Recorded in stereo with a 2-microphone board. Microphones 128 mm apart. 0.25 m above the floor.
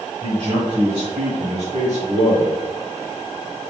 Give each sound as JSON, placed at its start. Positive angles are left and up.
{"t": 0.2, "sound": "a man speaking", "side_deg": -50, "distance_m": 1.6}